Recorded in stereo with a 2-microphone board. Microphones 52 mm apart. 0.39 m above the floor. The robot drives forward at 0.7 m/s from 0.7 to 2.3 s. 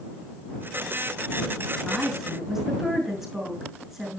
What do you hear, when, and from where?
1.9 s a woman speaking: 5° right (ahead or behind), 6 m